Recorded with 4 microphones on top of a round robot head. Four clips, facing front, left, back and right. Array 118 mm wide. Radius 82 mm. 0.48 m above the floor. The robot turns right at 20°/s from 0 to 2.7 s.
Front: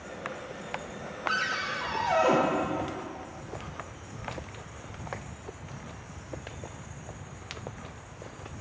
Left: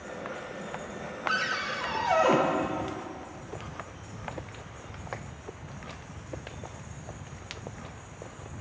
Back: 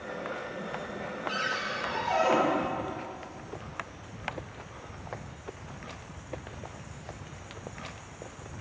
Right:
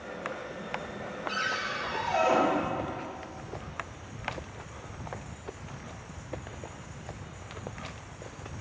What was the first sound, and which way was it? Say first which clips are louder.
A cupboard door: left 2 dB, front 3 dB; 35° left.